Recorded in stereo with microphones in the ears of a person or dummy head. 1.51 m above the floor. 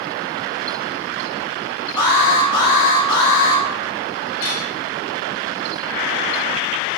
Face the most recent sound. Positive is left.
turn(degrees=65)  # may be behind; listen again after turning